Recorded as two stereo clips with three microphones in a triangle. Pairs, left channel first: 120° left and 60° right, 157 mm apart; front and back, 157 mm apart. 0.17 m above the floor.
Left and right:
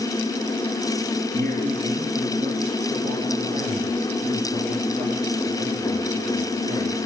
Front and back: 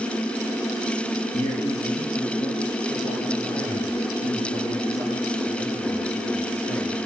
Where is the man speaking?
60° right, 3 m; by 7.0 s 75° right, 6 m.